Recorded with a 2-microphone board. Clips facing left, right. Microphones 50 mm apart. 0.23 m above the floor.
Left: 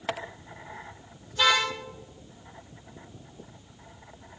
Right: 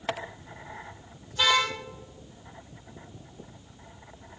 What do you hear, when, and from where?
1.3 s a car horn: centre (ahead or behind), 4 m